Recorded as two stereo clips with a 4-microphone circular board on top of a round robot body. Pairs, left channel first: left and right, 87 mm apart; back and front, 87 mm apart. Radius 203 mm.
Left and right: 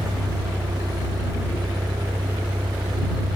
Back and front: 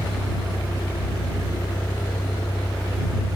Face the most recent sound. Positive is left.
turn(degrees=-130)